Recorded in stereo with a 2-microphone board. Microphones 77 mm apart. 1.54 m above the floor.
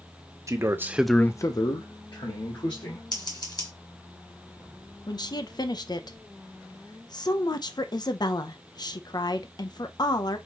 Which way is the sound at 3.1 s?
65° left (ahead or behind).